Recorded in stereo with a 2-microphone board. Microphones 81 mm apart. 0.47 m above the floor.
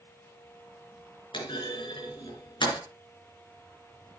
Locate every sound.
1.3 s a clunk: 85° left, 4 m